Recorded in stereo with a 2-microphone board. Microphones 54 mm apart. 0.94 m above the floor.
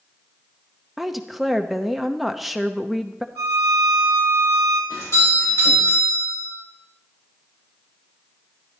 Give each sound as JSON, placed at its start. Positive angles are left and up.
{"t": 1.0, "sound": "a woman speaking", "side_deg": 0, "distance_m": 0.8}
{"t": 3.4, "sound": "a violin", "side_deg": 40, "distance_m": 3.0}
{"t": 4.9, "sound": "a doorbell", "side_deg": 65, "distance_m": 6.0}